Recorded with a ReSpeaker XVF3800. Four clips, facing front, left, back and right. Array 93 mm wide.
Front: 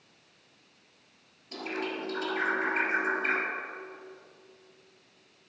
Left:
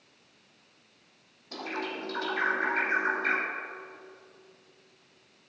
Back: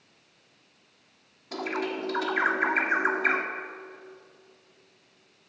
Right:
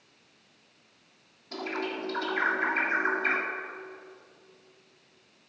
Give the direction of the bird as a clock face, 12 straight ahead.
6 o'clock.